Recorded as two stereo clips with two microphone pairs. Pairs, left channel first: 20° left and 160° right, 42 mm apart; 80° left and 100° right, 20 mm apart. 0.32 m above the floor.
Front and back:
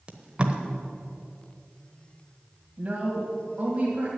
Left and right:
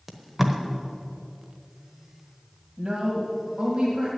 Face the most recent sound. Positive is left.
turn(degrees=-110)